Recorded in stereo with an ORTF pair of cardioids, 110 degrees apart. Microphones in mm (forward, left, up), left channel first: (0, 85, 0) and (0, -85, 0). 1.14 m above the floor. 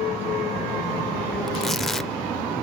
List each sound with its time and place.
1.5 s tearing paper: straight ahead, 0.5 m